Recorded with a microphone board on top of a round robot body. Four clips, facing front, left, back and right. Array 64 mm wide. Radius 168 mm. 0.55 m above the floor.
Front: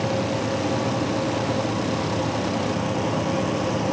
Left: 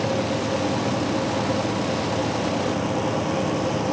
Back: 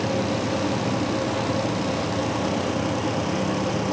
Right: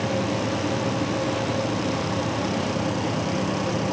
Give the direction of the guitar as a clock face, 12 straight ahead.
No guitar in this recording.